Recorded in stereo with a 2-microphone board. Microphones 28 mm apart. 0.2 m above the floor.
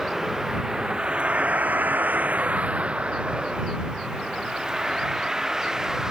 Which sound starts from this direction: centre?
A vehicle, at 0.0 s.